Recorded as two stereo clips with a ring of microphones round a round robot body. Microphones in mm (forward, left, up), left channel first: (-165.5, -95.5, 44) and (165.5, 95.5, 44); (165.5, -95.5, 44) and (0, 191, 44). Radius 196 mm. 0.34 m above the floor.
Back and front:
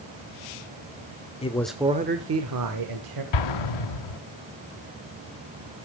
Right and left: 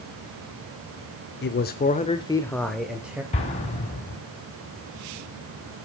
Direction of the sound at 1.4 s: 85° right.